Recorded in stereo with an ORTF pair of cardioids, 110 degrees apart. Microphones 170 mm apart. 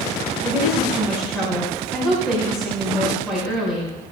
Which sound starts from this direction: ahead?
A woman speaking, at 0.4 s.